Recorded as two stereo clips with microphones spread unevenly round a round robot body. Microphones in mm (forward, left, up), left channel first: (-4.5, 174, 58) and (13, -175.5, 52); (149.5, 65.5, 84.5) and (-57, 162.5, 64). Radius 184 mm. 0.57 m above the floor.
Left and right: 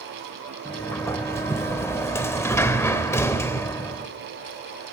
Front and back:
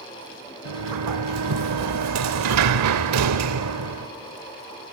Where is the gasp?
No gasp in this recording.